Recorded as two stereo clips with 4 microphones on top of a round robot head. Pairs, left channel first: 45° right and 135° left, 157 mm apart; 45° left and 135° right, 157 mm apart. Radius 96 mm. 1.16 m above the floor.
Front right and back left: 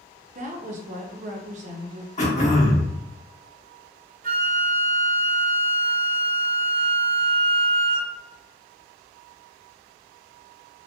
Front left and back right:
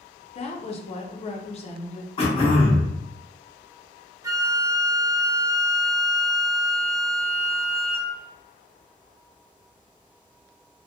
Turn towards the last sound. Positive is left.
turn(degrees=155)